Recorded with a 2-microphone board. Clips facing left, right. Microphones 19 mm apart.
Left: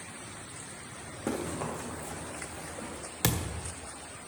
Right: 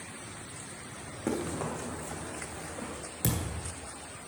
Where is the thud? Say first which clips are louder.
Left 2 dB; 45° left (ahead or behind), 1.2 m.